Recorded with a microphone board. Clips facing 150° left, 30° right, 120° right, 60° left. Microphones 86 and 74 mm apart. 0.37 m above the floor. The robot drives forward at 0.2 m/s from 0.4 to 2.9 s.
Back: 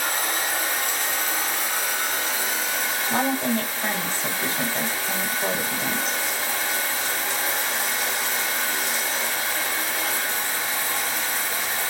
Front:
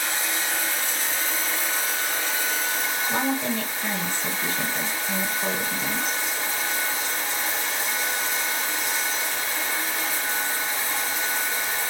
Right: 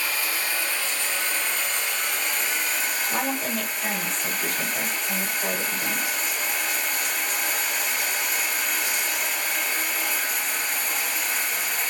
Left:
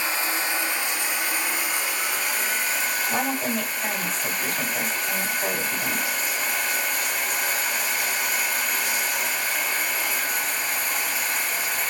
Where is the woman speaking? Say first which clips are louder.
Back 3 dB, left 1 dB; 140° left, 1.3 m.